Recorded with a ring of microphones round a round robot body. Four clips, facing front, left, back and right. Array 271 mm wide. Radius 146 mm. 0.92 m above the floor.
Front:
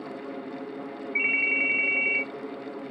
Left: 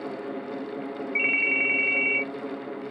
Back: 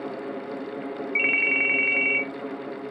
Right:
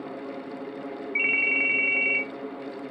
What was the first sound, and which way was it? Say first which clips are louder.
A ringtone: even, back 1 dB; 175° right.